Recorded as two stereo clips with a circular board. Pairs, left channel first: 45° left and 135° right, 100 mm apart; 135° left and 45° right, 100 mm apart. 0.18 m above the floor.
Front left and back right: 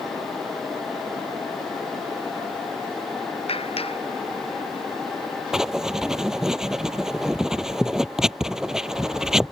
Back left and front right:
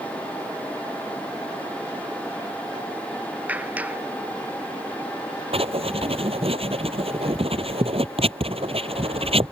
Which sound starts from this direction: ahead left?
A clap, at 3.5 s.